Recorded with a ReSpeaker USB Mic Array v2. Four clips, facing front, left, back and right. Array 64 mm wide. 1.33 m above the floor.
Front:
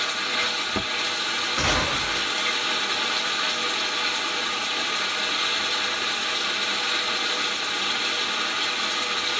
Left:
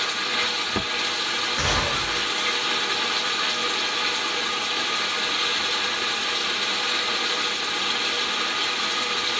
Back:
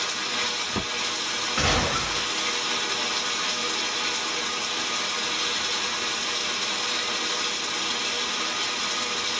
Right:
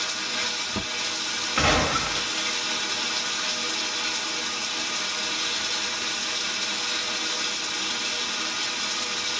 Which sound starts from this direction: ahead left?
Running water, at 0.0 s.